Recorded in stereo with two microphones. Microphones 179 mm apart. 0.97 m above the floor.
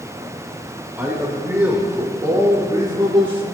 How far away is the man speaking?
About 4 m.